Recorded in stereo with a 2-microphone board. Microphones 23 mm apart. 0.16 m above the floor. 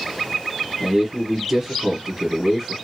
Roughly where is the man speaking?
Right.